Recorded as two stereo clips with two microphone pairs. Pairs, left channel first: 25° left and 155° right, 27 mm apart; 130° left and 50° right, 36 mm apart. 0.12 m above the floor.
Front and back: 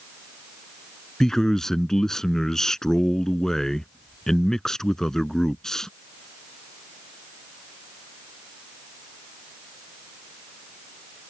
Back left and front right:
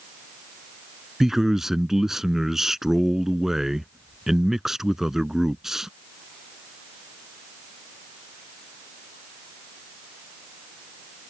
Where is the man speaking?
10° left.